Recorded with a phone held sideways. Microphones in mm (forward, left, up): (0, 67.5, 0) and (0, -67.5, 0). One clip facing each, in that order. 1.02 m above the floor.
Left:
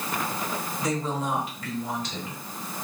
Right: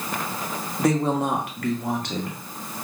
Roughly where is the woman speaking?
Right.